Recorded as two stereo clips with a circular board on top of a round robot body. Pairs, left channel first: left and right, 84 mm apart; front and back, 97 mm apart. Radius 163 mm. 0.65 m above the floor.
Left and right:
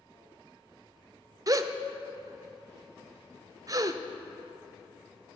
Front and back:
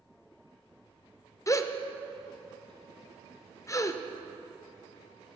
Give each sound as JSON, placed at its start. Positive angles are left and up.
{"t": 1.5, "sound": "a gasp", "azimuth_deg": -50, "distance_m": 0.6}